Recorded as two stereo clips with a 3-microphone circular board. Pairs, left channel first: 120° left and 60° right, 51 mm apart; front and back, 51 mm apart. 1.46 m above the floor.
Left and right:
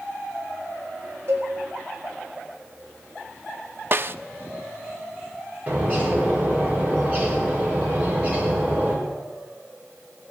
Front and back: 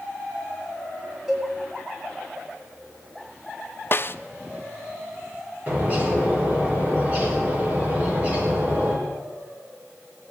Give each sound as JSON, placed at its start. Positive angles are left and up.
{"t": 1.3, "sound": "a cowbell", "azimuth_deg": -100, "distance_m": 4.0}
{"t": 3.9, "sound": "a snare drum", "azimuth_deg": -30, "distance_m": 0.5}
{"t": 5.7, "sound": "a bird", "azimuth_deg": -115, "distance_m": 4.0}